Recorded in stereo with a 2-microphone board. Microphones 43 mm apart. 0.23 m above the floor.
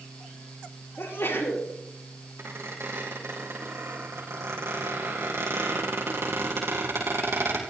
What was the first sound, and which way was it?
A sneeze, 70° left (ahead or behind).